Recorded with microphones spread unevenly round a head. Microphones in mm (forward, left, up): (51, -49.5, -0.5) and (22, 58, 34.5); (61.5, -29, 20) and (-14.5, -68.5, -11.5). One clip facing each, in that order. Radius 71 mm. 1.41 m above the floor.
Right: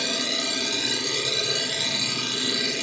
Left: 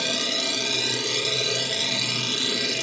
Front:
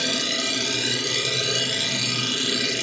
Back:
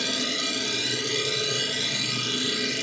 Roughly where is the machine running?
Ahead left.